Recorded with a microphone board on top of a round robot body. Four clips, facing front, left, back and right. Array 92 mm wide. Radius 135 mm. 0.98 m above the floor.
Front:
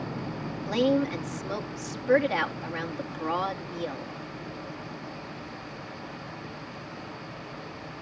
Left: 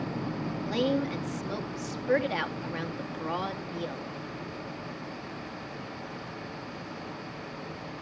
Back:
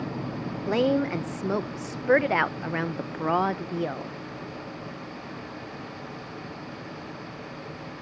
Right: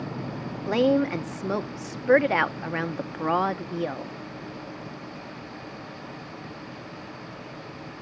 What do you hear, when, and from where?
0.7 s a woman speaking: 130° right, 1.0 m